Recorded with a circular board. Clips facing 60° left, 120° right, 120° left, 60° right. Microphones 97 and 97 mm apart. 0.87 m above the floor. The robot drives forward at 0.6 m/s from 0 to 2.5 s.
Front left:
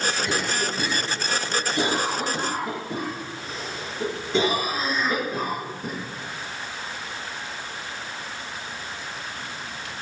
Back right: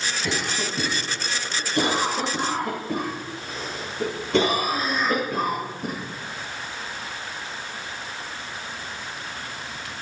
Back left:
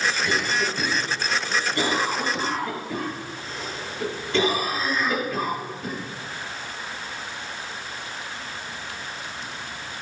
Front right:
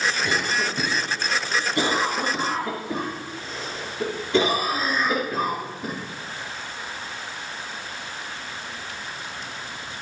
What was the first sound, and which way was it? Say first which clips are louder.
A cough: front left 2 dB, even; 120° right.